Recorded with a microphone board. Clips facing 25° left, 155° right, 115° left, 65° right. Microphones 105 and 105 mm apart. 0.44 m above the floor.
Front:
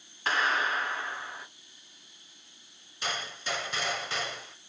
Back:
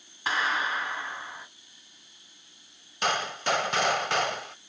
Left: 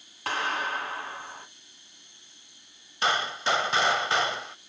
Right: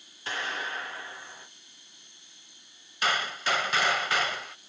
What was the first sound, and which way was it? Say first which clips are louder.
A clap: even, left 5 dB; 125° left.